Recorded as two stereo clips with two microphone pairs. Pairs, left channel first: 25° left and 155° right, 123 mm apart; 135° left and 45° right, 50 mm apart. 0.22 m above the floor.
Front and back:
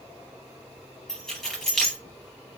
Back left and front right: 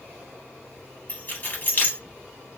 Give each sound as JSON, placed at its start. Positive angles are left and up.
{"t": 1.1, "sound": "keys jangling", "azimuth_deg": 110, "distance_m": 0.9}